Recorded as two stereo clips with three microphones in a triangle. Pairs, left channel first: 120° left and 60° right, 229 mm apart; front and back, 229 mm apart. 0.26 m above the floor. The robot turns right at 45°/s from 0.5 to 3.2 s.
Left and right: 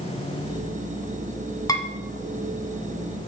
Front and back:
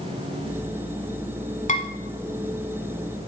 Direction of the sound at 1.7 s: 45° left.